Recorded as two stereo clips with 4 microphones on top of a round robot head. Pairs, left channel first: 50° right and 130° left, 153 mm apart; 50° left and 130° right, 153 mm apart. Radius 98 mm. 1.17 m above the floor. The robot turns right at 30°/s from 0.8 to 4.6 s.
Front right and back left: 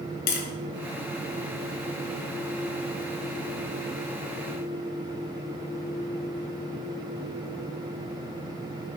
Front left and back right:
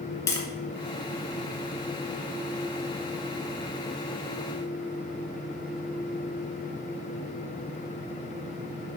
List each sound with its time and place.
0.3 s tapping: 20° right, 2.5 m